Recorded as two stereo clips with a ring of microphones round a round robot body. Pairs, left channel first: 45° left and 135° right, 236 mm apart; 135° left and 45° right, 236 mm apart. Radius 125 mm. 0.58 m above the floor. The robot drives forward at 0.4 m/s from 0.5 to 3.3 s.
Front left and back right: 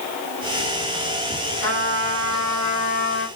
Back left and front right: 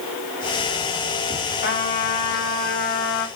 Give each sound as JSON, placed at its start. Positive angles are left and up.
{"t": 1.6, "sound": "a trumpet", "azimuth_deg": -175, "distance_m": 3.5}